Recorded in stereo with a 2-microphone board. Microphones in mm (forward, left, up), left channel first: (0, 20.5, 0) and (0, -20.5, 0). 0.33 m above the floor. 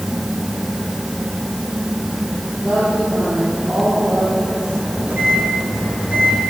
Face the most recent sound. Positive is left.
turn(degrees=-40)  # may be behind; listen again after turning